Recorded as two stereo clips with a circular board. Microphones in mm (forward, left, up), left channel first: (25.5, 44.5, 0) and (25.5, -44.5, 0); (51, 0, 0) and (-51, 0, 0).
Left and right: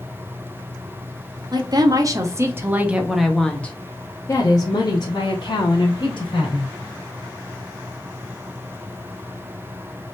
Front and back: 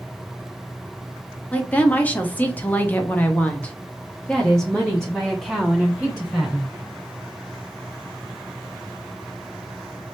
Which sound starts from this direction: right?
A woman speaking, at 1.5 s.